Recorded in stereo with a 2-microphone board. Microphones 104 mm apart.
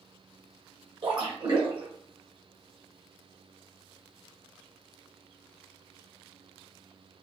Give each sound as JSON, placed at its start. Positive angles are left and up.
{"t": 1.0, "sound": "a splash", "side_deg": -55, "distance_m": 1.8}